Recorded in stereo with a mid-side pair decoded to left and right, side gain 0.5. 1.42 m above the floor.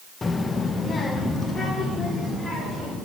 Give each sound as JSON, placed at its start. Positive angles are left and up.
{"t": 0.2, "sound": "a child speaking", "azimuth_deg": 30, "distance_m": 0.8}